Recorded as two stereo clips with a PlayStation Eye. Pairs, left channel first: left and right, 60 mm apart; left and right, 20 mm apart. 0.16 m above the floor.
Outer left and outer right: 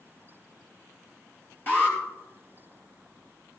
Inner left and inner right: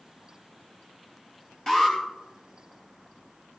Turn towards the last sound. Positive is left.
turn(degrees=35)  # may be behind; listen again after turning